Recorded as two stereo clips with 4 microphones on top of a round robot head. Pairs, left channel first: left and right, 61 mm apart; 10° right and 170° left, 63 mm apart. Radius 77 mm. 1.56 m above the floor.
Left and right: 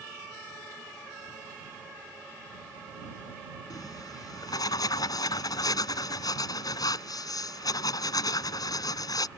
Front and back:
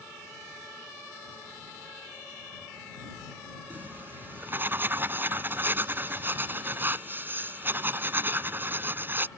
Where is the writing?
115° left.